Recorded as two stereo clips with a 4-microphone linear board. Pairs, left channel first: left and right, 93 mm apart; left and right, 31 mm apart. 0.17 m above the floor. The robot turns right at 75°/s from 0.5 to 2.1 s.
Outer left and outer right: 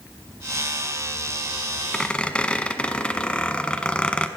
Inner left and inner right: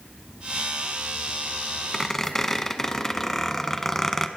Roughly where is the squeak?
Centre.